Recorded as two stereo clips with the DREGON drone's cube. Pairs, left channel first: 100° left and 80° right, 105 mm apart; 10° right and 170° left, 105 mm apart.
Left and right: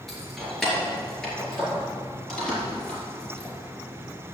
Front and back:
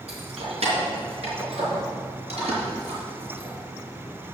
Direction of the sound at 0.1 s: 170° right.